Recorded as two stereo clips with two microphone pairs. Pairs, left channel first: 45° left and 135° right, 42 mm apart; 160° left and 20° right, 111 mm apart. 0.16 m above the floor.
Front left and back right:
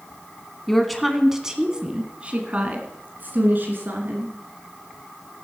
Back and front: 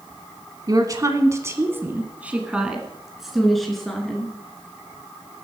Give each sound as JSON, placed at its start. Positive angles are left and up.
{"t": 0.7, "sound": "a woman speaking", "azimuth_deg": -35, "distance_m": 1.2}